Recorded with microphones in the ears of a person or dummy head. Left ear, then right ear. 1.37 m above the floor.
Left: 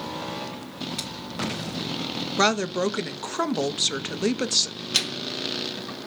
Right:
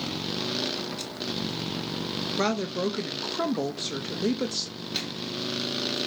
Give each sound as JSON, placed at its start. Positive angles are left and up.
{"t": 1.0, "sound": "scissors", "side_deg": 40, "distance_m": 2.0}
{"t": 2.4, "sound": "a woman speaking", "side_deg": 30, "distance_m": 0.5}
{"t": 4.9, "sound": "a microwave", "side_deg": 35, "distance_m": 0.8}